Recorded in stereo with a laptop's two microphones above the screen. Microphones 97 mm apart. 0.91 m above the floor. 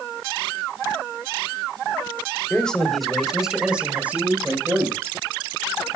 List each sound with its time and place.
2.5 s a man speaking: 10° left (ahead or behind), 3 m; by 5.2 s 25° right (ahead or behind), 5 m